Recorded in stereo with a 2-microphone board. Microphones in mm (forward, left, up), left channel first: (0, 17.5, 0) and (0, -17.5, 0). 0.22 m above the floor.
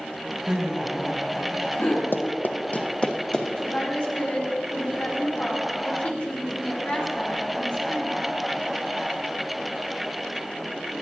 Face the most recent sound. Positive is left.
turn(degrees=35)  # may be behind; listen again after turning